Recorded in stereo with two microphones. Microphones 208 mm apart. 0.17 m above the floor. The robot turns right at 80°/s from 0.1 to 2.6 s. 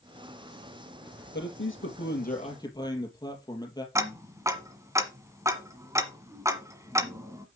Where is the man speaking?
60° left, 3.5 m; by 3.9 s 160° left, 3.5 m.